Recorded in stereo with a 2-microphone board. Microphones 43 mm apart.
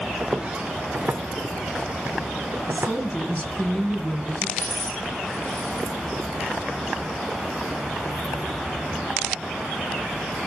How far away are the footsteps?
About 1.4 m.